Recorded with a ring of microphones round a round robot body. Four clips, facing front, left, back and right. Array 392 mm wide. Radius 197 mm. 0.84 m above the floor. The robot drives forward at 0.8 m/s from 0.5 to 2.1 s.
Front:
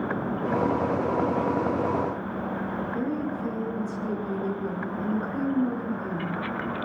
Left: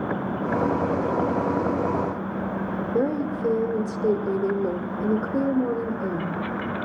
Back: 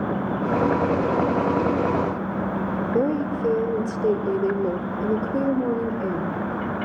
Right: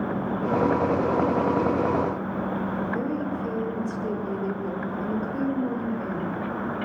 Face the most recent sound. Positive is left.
turn(degrees=140)